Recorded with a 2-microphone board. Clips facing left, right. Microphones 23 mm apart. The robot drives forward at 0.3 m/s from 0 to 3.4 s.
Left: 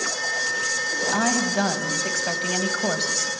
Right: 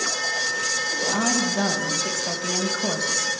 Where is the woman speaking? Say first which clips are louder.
Left 1 dB; 35° left (ahead or behind), 3 m; by 3.3 s 45° left (ahead or behind), 2.5 m.